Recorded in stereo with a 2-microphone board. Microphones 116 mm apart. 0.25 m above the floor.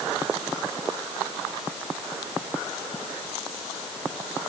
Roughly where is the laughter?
No laughter in this recording.